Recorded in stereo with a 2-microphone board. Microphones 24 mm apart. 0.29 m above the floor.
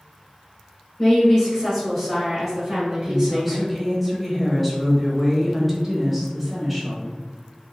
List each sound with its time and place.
1.0 s a woman speaking: 30° left (ahead or behind), 1.6 m; by 3.6 s 25° right (ahead or behind), 1.5 m
3.1 s a woman speaking: centre (ahead or behind), 0.9 m